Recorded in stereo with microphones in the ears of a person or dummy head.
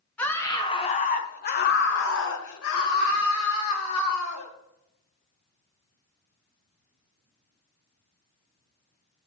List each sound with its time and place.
0.2 s a scream: 5° left (ahead or behind), 1.1 m; by 4.5 s 80° left, 2.5 m